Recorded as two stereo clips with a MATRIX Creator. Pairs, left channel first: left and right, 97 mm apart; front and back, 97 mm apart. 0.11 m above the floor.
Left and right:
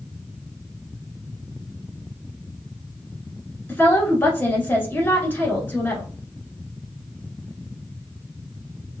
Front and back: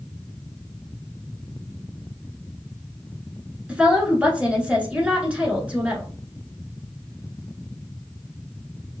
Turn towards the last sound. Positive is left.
turn(degrees=120)